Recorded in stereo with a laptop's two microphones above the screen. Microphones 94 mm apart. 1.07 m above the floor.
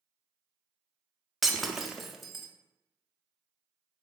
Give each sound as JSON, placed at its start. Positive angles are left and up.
{"t": 1.4, "sound": "breaking glass", "side_deg": -5, "distance_m": 0.5}